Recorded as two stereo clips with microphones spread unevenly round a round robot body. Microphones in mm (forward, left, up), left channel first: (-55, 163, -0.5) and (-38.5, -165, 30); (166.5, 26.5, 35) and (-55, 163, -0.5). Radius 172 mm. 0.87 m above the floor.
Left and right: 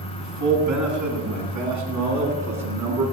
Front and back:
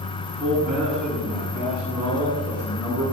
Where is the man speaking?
120° right, 8.5 m; by 3.0 s 125° right, 11 m.